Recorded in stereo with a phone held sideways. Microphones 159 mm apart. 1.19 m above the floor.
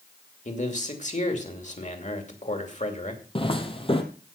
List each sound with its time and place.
0.5 s a man speaking: 50° left (ahead or behind), 2.5 m
3.4 s footsteps: 35° left (ahead or behind), 1.7 m